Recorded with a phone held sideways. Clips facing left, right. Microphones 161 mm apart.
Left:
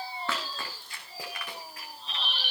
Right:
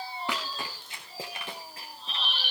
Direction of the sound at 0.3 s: 15° right (ahead or behind).